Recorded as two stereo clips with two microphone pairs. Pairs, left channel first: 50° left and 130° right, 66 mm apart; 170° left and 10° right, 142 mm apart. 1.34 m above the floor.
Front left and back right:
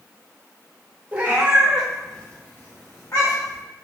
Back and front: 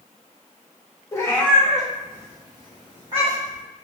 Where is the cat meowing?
145° right, 0.7 m; by 3.6 s 30° left, 1.2 m.